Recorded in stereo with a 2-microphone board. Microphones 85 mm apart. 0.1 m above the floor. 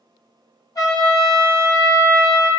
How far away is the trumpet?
About 1.8 m.